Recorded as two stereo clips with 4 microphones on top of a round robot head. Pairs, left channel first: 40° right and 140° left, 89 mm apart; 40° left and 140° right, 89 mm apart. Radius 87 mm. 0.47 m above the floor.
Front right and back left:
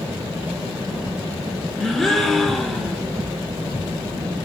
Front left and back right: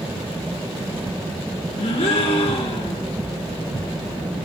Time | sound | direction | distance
1.8 | a gasp | 50° left | 2.5 m